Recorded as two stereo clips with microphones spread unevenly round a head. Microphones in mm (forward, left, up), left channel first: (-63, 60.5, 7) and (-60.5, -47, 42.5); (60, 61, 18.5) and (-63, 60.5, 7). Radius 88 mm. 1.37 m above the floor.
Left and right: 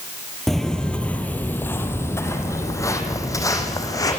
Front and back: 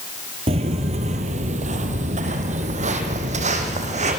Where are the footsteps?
160° right, 1.7 m; by 4.2 s 155° left, 4 m.